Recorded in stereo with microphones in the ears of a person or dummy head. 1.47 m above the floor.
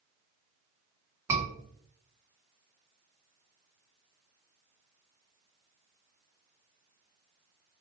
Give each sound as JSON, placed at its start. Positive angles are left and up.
{"t": 1.3, "sound": "a scream", "side_deg": -15, "distance_m": 1.8}